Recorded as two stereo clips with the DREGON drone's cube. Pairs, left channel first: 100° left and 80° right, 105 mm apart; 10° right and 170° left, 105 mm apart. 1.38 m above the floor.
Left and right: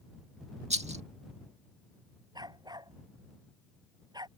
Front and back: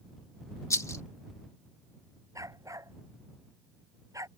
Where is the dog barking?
130° right.